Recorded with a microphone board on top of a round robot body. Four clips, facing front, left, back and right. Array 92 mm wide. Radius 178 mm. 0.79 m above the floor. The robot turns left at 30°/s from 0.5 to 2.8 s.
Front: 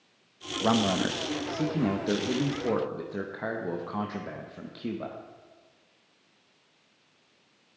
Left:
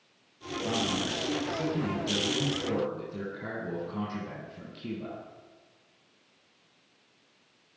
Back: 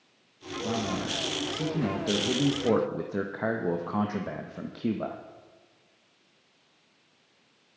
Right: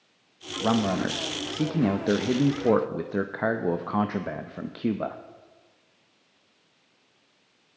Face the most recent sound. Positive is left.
turn(degrees=-110)